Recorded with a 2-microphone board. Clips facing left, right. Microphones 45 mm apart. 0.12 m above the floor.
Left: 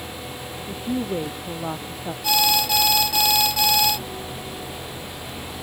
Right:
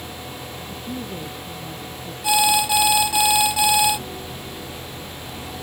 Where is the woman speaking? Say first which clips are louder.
Left 7 dB; 55° left (ahead or behind); by 2.1 s 65° left (ahead or behind).